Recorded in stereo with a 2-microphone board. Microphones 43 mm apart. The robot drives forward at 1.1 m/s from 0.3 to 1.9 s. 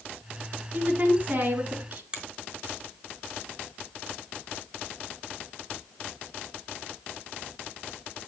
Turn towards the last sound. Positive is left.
turn(degrees=-20)  # may be behind; listen again after turning